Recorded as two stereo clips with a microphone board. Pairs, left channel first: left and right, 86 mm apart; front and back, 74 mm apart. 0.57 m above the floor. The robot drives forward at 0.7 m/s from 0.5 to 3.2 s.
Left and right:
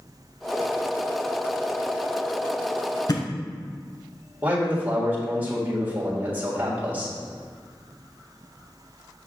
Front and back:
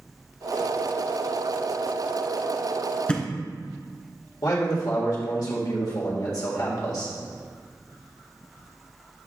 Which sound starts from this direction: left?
A thud, at 3.1 s.